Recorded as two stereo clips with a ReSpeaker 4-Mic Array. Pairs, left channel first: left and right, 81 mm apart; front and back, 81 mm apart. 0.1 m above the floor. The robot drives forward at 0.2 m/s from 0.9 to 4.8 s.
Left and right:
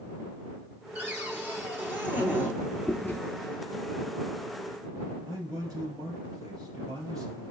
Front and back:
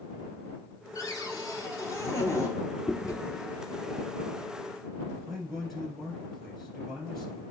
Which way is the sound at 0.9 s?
25° right.